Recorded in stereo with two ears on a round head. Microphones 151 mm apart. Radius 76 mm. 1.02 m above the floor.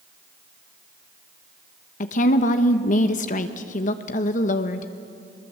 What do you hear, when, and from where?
2.0 s a woman speaking: 45° left (ahead or behind), 1.0 m